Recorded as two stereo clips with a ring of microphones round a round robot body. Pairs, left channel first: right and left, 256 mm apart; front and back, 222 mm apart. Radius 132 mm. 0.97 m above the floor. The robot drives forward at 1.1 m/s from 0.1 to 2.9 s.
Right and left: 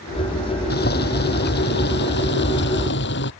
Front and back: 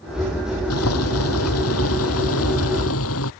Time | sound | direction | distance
0.7 | boiling | 35° right | ?